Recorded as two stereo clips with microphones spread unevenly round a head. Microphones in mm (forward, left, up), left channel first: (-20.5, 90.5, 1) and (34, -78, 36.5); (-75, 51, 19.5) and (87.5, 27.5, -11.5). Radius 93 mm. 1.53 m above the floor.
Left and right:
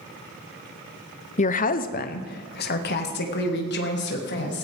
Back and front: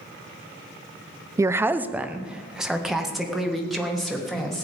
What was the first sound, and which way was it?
A woman speaking, 60° left.